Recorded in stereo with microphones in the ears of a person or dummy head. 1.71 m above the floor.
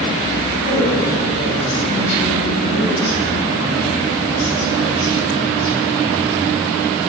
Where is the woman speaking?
60° left (ahead or behind), 4 m.